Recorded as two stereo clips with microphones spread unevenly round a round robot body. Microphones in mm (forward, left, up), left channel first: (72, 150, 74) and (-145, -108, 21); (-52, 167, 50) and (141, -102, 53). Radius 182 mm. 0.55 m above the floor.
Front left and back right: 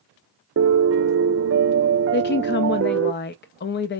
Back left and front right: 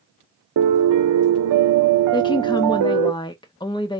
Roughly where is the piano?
Right.